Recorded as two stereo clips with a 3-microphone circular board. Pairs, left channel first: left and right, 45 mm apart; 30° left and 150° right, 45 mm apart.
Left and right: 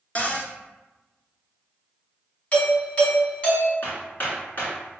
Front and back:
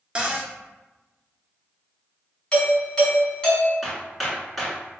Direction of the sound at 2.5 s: 75° left.